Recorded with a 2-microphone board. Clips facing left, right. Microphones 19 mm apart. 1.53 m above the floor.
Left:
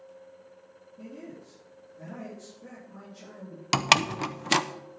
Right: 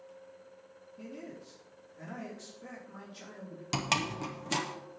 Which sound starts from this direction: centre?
A man speaking, at 1.0 s.